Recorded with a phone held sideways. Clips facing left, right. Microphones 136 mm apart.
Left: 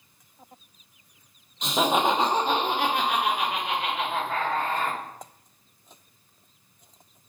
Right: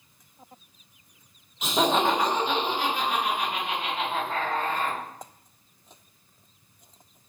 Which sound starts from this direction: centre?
Laughter, at 1.6 s.